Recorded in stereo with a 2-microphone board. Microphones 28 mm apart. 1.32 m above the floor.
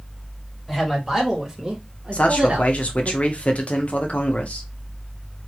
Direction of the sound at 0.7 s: 5° right (ahead or behind).